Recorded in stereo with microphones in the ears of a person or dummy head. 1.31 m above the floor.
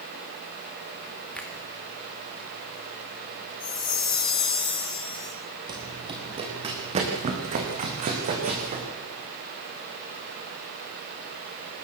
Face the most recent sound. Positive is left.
turn(degrees=-35)  # may be behind; listen again after turning